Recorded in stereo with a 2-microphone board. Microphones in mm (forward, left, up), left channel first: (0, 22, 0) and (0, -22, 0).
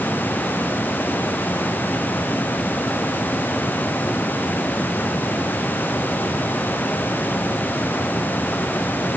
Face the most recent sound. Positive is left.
No sound to turn to.